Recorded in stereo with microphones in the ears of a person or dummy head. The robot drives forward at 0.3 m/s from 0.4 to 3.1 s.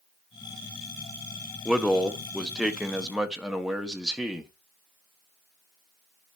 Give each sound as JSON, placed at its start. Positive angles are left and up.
{"t": 1.6, "sound": "a man speaking", "side_deg": 0, "distance_m": 0.9}